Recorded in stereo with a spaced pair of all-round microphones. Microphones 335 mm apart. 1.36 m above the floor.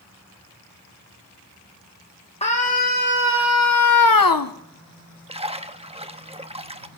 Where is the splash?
20° right (ahead or behind), 0.7 m.